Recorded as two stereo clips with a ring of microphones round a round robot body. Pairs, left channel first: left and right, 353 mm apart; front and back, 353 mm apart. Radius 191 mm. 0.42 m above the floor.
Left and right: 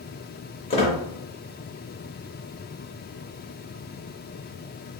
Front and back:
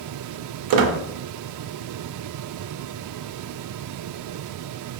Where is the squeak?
165° left, 0.5 m.